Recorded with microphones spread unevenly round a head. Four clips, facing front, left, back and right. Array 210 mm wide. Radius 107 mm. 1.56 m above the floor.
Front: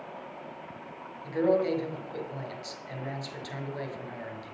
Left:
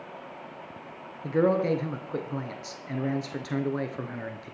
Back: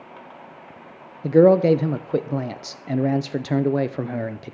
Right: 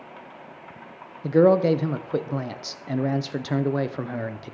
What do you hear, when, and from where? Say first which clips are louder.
1.2 s a man speaking: right 6 dB, back 12 dB; 165° right, 0.8 m